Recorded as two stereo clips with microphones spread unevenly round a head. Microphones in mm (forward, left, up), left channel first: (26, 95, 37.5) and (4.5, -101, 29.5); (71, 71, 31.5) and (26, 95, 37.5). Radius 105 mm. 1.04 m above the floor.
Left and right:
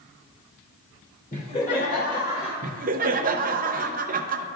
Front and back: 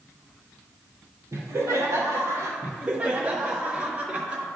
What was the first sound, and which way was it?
Laughter, 135° left.